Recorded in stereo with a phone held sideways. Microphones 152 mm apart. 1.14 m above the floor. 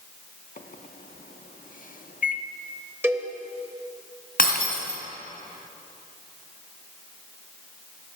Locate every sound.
0.6 s a microwave: 65° left (ahead or behind), 0.6 m
3.0 s a cowbell: 15° right (ahead or behind), 0.9 m
4.4 s breaking glass: 70° left (ahead or behind), 2.5 m